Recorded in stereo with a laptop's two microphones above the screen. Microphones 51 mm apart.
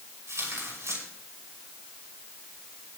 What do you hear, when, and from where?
0.3 s tearing paper: 75° right (ahead or behind), 5.5 m